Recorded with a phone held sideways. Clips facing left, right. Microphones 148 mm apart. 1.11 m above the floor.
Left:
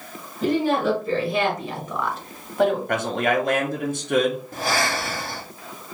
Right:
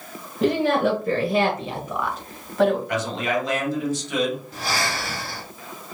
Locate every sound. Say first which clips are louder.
0.4 s a woman speaking: right 1 dB; 80° right, 1.1 m; by 2.8 s 15° left (ahead or behind), 1.4 m
2.9 s a man speaking: left 2 dB; 55° left (ahead or behind), 0.9 m
4.5 s breathing: left 3 dB; 50° left (ahead or behind), 0.8 m